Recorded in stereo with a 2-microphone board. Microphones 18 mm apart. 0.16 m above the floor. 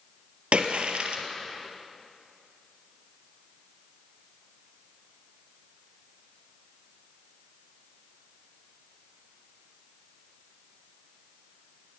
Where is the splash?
70° right (ahead or behind), 2 m.